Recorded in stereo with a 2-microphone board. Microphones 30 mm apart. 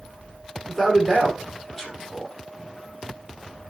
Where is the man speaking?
10° left (ahead or behind), 4 m.